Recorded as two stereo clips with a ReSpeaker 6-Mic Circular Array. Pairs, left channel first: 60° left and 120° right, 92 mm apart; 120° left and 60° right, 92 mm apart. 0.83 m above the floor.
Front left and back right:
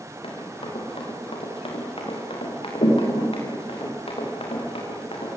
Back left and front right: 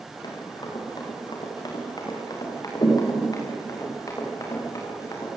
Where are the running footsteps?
80° left, 7.5 m; by 5.3 s 65° left, 8.5 m.